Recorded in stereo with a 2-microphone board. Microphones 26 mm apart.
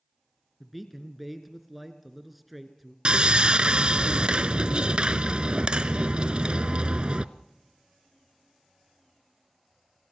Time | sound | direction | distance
0.6 | a man speaking | 5° right (ahead or behind) | 2 m
3.0 | sawing | 40° right (ahead or behind) | 0.6 m